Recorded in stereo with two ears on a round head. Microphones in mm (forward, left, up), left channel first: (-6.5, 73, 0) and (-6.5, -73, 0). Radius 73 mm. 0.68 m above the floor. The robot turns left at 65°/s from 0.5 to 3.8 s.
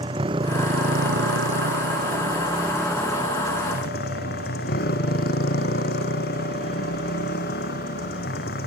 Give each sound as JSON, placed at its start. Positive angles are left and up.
{"t": 0.0, "sound": "a motorcycle", "azimuth_deg": -30}